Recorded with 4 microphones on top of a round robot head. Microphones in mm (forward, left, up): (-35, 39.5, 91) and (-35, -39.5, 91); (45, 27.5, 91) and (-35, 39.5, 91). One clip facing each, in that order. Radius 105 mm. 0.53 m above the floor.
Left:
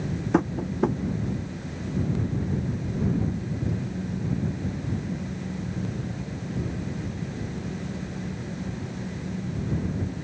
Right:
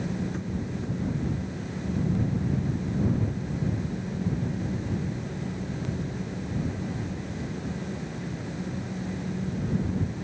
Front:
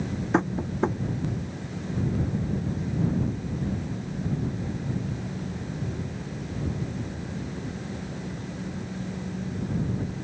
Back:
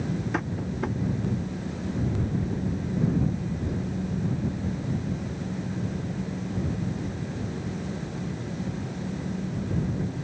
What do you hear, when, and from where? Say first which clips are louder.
0.3 s tapping: left 9 dB, front 5 dB; 55° left